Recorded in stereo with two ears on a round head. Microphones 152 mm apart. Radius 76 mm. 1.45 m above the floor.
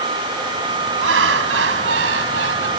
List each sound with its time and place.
1.0 s laughter: 85° right